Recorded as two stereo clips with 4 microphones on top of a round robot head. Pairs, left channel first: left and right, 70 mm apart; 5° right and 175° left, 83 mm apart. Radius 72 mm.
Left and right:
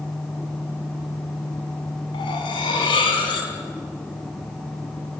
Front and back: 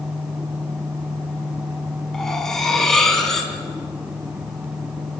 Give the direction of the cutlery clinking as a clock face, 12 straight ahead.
9 o'clock.